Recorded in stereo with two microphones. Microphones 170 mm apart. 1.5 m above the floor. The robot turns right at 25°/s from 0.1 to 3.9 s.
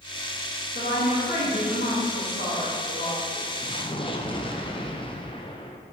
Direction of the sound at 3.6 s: 35° left (ahead or behind).